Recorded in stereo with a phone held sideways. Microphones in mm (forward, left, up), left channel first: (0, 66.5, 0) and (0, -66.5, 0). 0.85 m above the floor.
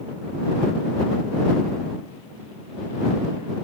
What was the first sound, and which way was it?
Only background noise.